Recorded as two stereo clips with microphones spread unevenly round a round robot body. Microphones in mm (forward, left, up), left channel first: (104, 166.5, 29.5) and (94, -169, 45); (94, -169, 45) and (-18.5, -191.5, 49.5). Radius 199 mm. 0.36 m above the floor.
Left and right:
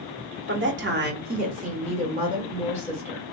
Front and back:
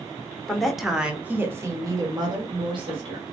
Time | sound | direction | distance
0.5 | a woman speaking | 65° right | 1.1 m